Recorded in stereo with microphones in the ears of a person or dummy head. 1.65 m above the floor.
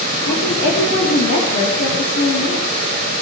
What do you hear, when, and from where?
0.2 s a woman speaking: 55° left (ahead or behind), 3 m